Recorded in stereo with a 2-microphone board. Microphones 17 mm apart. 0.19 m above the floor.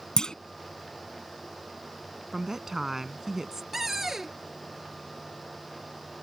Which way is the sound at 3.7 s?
20° right (ahead or behind).